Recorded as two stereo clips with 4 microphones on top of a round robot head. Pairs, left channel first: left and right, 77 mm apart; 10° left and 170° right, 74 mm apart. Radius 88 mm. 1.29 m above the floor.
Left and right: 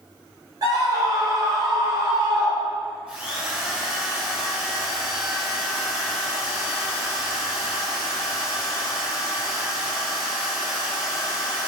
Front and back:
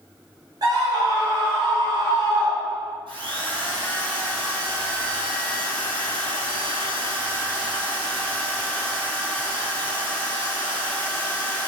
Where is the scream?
135° right, 6.5 m; by 3.0 s 145° right, 8 m.